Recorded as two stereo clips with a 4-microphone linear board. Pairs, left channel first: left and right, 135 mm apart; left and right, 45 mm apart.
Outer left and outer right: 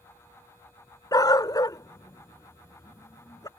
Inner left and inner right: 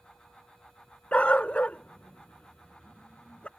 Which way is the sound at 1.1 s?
30° left (ahead or behind).